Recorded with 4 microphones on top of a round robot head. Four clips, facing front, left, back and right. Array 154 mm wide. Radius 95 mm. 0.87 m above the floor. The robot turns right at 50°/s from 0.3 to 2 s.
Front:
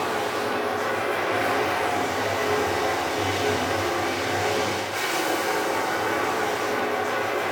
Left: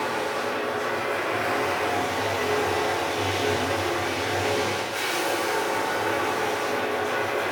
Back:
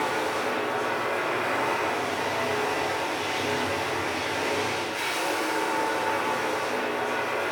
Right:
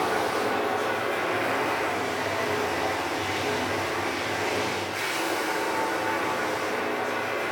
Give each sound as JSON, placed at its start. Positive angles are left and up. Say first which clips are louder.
{"t": 0.0, "sound": "running water", "louder": "right 2 dB, front 1 dB", "azimuth_deg": -55, "distance_m": 0.9}